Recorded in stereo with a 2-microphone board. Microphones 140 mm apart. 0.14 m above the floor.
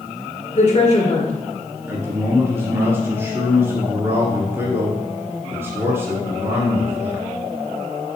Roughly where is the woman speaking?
Left.